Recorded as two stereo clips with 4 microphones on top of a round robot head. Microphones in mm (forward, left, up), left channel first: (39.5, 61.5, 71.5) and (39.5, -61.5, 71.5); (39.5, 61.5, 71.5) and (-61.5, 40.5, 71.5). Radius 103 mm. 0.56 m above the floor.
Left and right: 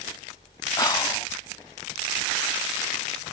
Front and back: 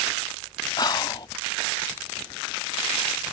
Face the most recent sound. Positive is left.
turn(degrees=45)